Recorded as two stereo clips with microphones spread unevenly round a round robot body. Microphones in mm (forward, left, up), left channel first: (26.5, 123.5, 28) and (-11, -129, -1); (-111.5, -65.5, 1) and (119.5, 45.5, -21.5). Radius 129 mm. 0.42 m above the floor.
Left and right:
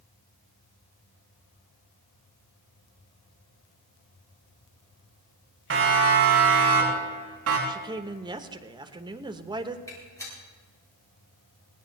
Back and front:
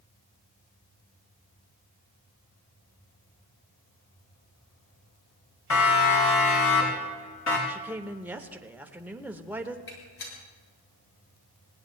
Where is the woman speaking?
45° right, 0.9 m.